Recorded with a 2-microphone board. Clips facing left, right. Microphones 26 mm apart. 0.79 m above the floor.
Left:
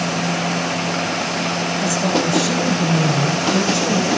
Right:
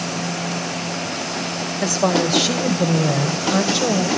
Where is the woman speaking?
65° right (ahead or behind), 3 m; by 4.1 s 45° right (ahead or behind), 3.5 m.